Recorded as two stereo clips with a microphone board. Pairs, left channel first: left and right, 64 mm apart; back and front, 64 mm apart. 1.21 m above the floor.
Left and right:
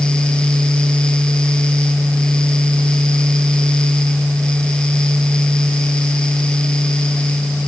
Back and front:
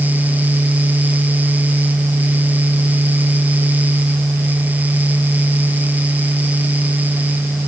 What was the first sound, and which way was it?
Only background noise.